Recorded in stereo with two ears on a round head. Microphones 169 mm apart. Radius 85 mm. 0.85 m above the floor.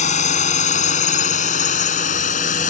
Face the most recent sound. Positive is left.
turn(degrees=40)  # may be behind; listen again after turning